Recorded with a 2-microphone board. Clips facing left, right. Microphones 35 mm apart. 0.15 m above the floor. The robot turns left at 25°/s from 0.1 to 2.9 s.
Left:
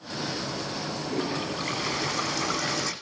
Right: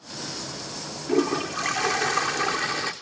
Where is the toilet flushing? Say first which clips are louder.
Right 8 dB; 95° right, 3 m; by 2.9 s 140° right, 3 m.